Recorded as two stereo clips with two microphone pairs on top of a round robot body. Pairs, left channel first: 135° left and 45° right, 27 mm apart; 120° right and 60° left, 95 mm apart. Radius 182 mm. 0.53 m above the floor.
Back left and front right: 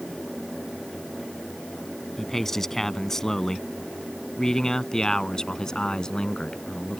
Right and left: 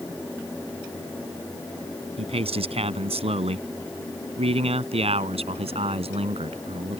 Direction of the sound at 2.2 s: 55° left.